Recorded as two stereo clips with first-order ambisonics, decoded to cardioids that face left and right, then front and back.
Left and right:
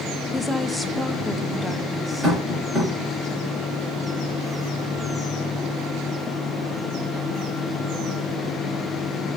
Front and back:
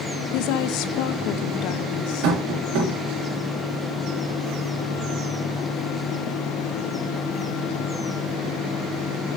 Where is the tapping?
165° right, 3.5 m.